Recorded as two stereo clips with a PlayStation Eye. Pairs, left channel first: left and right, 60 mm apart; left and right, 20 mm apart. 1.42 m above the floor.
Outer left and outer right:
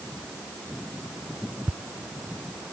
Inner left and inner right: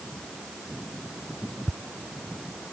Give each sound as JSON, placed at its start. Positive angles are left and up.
{"t": 1.7, "sound": "ticking", "side_deg": -45}